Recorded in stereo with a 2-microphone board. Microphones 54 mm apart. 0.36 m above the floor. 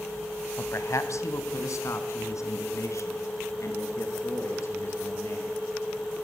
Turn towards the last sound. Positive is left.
turn(degrees=55)  # may be behind; listen again after turning